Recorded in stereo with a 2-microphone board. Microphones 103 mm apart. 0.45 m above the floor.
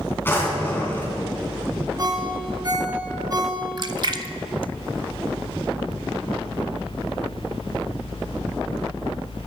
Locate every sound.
0.2 s a drawer: 20° left (ahead or behind), 3 m
2.0 s a ringtone: 35° right (ahead or behind), 2.5 m
3.8 s a splash: 45° right (ahead or behind), 0.7 m